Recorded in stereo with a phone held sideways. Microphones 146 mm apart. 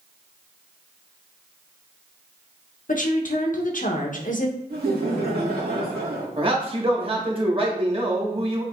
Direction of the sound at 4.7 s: 90° right.